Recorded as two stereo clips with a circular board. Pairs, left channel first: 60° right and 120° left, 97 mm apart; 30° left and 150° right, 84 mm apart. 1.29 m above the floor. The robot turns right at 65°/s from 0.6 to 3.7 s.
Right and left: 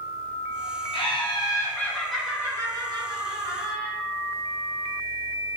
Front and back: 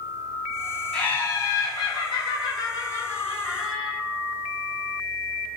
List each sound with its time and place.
0.9 s laughter: 45° right, 1.3 m; by 3.9 s 135° left, 1.3 m